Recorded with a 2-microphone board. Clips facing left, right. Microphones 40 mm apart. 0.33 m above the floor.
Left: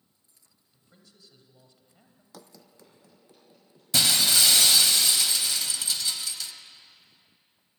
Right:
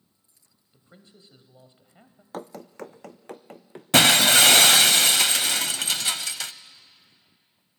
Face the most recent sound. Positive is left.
turn(degrees=-65)  # may be behind; listen again after turning